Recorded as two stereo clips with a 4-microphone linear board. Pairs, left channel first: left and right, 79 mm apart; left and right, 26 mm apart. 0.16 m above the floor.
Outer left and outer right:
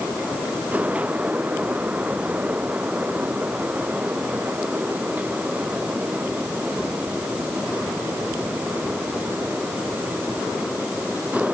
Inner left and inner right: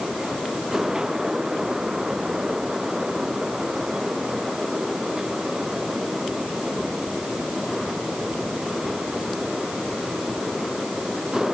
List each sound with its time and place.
Only background noise.